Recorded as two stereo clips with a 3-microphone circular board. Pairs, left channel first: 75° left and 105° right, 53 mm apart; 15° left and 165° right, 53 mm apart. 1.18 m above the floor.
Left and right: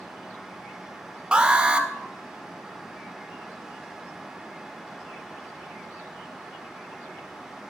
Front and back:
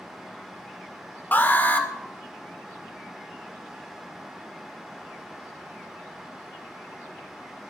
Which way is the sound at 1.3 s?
30° right.